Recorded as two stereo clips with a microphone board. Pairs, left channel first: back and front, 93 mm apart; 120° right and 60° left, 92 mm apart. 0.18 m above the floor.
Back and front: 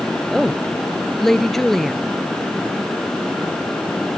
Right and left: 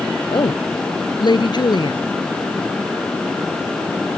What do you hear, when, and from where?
0.3 s a woman speaking: 95° right